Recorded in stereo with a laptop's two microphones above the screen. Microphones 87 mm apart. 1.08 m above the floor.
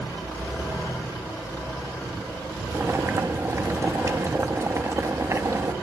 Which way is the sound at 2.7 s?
35° right (ahead or behind).